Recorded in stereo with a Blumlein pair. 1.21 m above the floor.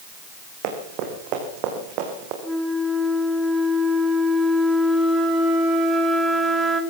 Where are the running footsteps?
40° right, 5 m.